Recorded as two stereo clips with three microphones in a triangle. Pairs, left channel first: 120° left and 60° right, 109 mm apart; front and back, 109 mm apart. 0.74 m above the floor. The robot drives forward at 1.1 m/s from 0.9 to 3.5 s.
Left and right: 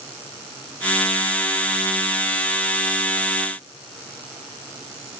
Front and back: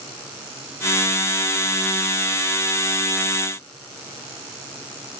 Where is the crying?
No crying in this recording.